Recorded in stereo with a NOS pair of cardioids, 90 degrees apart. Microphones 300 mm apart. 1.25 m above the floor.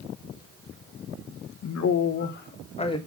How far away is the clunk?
I don't hear a clunk.